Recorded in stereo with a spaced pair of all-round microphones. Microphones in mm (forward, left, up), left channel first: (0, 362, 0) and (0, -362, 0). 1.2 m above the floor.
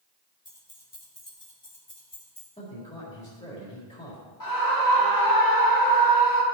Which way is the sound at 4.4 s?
30° left (ahead or behind).